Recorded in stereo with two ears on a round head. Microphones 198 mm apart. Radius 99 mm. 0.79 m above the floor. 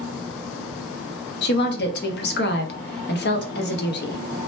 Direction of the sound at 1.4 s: 50° left (ahead or behind).